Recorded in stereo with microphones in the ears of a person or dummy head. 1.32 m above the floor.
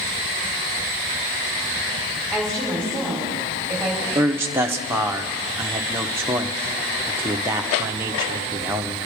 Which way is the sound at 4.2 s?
10° right (ahead or behind).